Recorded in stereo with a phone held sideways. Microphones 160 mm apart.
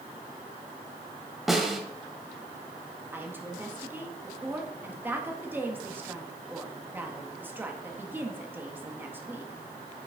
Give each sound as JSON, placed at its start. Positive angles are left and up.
{"t": 1.5, "sound": "a snare drum", "side_deg": 0, "distance_m": 1.6}
{"t": 3.1, "sound": "a woman speaking", "side_deg": -10, "distance_m": 1.7}